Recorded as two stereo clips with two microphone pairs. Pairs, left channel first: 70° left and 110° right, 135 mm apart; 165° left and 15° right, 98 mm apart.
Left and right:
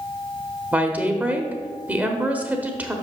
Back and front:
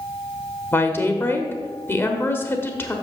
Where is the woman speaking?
175° right, 1.0 m.